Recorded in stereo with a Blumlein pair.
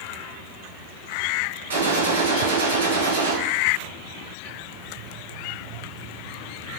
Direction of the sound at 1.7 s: 70° right.